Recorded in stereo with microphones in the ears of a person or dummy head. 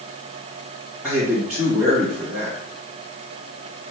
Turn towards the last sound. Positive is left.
turn(degrees=-15)  # may be behind; listen again after turning